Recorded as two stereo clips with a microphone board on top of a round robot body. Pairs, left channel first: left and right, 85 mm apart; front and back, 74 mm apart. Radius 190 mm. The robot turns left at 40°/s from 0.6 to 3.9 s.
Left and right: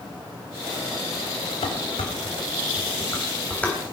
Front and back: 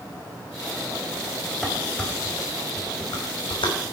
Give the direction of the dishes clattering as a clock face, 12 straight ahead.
9 o'clock.